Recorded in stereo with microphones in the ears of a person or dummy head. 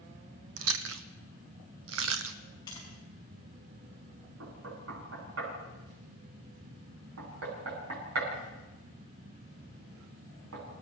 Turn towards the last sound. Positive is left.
turn(degrees=-85)